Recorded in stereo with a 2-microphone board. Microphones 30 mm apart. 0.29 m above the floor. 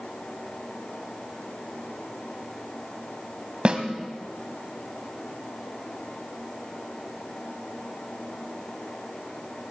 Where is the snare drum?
35° right (ahead or behind), 1.4 m.